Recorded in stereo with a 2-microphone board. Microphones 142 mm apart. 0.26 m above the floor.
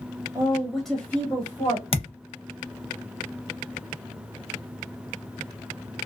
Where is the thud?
40° left (ahead or behind), 0.5 m.